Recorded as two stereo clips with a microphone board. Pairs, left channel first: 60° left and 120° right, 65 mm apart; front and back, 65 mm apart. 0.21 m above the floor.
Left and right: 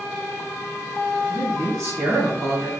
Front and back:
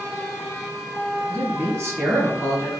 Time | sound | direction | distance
1.3 | a man speaking | 140° right | 1.7 m